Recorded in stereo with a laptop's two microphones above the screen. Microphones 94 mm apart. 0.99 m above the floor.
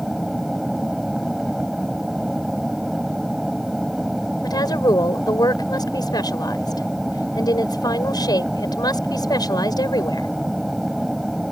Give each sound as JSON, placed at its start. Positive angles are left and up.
{"t": 0.0, "sound": "an aircraft", "side_deg": -5}
{"t": 4.4, "sound": "a woman speaking", "side_deg": 45}